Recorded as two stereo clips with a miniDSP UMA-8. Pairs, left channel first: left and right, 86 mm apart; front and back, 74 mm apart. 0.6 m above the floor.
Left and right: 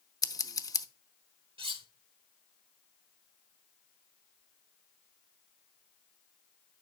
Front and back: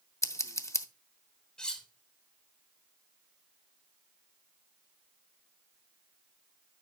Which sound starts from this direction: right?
Cutlery clinking, at 1.6 s.